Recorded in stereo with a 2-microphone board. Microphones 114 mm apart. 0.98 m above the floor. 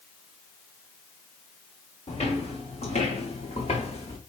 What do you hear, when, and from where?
2.1 s footsteps: 65° left (ahead or behind), 4 m